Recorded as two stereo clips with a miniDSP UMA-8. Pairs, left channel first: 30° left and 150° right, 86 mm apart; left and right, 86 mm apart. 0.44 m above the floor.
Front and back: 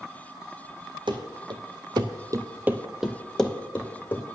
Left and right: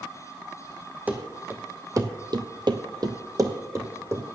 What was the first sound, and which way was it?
Running footsteps, 160° right.